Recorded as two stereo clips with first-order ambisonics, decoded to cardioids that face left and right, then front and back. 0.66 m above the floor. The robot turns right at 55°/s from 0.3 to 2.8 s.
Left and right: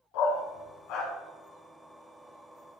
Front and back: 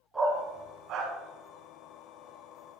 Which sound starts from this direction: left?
A dog barking, at 0.1 s.